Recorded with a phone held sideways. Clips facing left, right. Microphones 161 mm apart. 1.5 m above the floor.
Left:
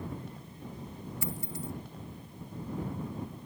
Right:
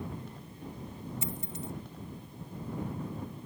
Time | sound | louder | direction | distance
1.2 | a dropped coin | left 1 dB | 25° right (ahead or behind) | ?